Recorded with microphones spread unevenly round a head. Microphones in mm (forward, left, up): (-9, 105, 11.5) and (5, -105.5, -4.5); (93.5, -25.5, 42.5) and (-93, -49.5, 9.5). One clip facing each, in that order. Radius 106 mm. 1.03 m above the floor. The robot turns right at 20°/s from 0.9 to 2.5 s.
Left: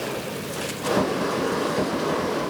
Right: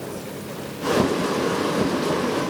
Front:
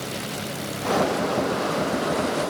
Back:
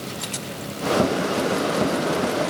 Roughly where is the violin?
I don't hear a violin.